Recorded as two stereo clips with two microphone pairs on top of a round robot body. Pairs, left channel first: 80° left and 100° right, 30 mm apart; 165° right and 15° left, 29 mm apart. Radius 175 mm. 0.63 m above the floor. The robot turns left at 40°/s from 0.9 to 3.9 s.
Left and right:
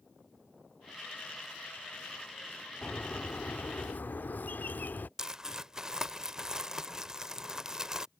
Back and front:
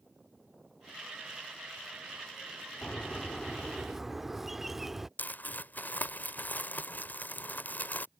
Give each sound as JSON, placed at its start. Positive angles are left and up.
{"t": 2.8, "sound": "a bird", "azimuth_deg": 140}
{"t": 5.2, "sound": "crumpling", "azimuth_deg": -175}